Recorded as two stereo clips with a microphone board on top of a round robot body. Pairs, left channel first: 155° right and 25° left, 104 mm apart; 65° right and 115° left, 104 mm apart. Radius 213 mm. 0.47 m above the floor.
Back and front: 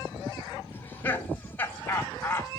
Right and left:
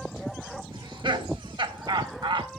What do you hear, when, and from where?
0.7 s laughter: 135° left, 2.5 m